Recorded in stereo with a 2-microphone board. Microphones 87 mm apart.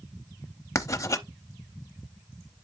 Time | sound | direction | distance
0.8 | writing | 40° left (ahead or behind) | 0.6 m